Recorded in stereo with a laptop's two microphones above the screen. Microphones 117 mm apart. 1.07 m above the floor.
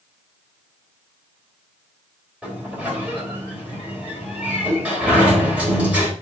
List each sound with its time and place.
2.4 s a sliding door: 10° right (ahead or behind), 3.5 m